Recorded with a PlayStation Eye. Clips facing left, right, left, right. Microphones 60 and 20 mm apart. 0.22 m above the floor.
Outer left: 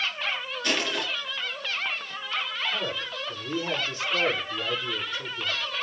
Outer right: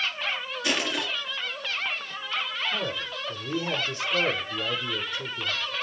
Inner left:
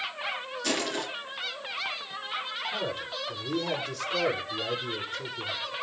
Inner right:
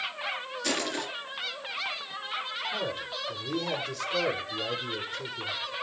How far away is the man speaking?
About 7 m.